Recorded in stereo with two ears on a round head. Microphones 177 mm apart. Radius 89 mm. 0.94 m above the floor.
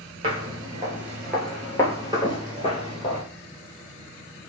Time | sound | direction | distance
0.2 | footsteps | 30° right (ahead or behind) | 1.0 m